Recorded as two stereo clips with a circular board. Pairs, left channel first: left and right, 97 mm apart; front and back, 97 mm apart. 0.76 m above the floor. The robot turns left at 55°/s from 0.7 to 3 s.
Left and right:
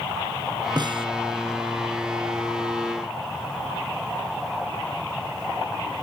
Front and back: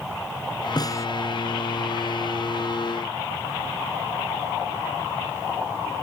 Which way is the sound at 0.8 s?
45° right.